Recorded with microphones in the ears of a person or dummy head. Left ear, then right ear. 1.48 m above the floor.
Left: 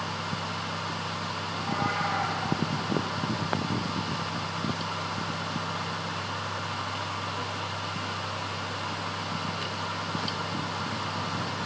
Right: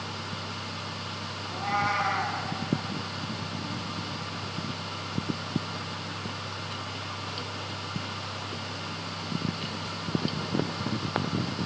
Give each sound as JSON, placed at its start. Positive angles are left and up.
{"t": 1.4, "sound": "a cat meowing", "side_deg": -55, "distance_m": 5.0}